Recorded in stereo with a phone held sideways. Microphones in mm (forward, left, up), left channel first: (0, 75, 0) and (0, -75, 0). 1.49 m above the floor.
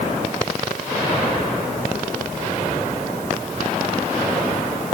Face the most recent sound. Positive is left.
No sound to turn to.